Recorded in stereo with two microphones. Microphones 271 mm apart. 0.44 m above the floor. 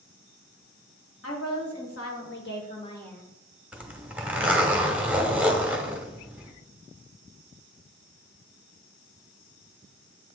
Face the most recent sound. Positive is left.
turn(degrees=-5)  # may be behind; listen again after turning